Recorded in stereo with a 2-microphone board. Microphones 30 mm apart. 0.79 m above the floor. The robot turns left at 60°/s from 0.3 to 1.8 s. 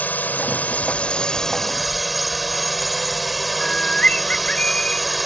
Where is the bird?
40° left (ahead or behind).